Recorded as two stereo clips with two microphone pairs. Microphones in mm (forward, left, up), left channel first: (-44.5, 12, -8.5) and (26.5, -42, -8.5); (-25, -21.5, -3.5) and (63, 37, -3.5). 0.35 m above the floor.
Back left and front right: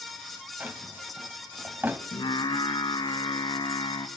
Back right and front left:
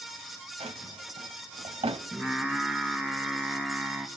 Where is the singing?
115° left, 2.0 m.